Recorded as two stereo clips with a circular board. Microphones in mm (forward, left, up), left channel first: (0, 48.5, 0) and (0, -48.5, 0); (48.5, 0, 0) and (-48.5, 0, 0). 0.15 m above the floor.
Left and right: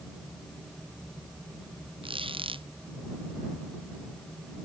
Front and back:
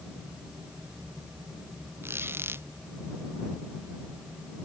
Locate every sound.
2.0 s a squeak: 115° right